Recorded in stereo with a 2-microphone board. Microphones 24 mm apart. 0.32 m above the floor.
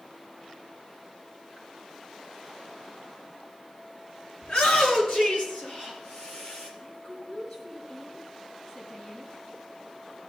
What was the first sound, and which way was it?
A shout, 75° left (ahead or behind).